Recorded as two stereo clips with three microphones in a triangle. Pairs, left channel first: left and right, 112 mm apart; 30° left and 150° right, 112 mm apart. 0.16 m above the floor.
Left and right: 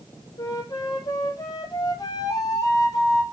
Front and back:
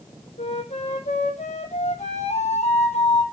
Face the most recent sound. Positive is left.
turn(degrees=35)